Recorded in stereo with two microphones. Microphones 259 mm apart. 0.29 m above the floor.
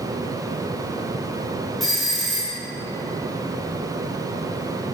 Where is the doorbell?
Centre (ahead or behind), 2.5 m.